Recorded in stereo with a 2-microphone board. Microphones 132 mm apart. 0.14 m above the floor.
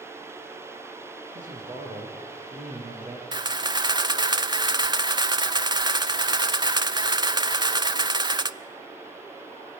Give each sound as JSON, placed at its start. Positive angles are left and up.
{"t": 1.4, "sound": "a man speaking", "side_deg": -75, "distance_m": 9.0}
{"t": 3.3, "sound": "a camera shutter", "side_deg": -30, "distance_m": 0.6}